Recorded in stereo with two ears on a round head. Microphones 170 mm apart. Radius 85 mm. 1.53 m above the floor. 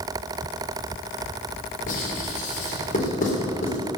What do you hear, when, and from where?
1.9 s writing: 45° left (ahead or behind), 4 m